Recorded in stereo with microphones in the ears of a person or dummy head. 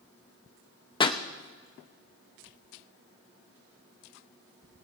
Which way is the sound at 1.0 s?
25° left (ahead or behind).